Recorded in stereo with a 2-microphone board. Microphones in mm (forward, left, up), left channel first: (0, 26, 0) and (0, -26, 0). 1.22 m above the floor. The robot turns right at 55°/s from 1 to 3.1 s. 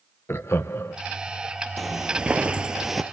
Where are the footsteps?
5° left (ahead or behind), 1.5 m; by 3.0 s centre (ahead or behind), 1.4 m.